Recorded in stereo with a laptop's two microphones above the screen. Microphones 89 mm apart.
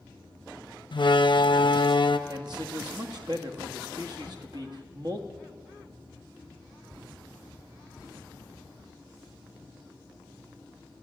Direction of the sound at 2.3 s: 55° right (ahead or behind).